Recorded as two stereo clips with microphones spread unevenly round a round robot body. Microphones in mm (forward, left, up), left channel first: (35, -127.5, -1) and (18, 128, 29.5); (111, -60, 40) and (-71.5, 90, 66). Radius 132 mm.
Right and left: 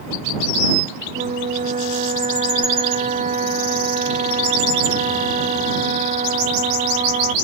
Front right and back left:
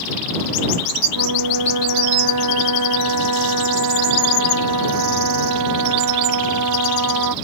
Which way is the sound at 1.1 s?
160° left.